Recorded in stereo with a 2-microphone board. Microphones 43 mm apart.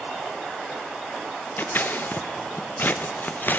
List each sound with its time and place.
1.6 s scissors: 45° left (ahead or behind), 0.6 m